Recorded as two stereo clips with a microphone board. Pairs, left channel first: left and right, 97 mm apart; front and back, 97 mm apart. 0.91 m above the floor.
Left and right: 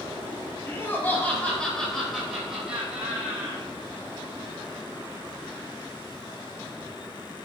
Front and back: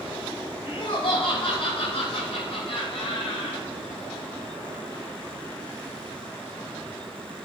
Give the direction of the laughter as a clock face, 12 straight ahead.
11 o'clock.